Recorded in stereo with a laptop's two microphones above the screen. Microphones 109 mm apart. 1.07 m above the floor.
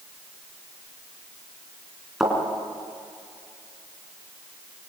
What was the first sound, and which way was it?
A thud, 5° right (ahead or behind).